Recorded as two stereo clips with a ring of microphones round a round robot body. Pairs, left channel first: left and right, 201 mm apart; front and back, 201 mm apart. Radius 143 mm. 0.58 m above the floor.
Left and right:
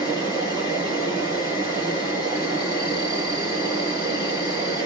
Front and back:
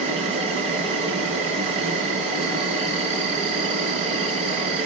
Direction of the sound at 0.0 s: 170° right.